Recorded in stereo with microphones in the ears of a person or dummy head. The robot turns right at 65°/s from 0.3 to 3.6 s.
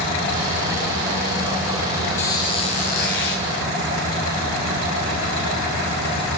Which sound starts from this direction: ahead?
A squeak, at 2.2 s.